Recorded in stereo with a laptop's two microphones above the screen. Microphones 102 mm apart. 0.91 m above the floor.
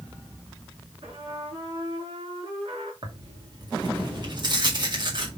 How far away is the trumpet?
About 3.5 m.